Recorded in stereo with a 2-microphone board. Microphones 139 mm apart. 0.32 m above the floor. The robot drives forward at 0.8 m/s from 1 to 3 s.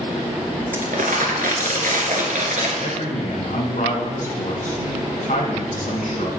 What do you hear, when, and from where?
0.7 s crumpling: 75° right (ahead or behind), 1.9 m; by 2.7 s 60° right (ahead or behind), 2 m
2.8 s a man speaking: 70° left (ahead or behind), 2.5 m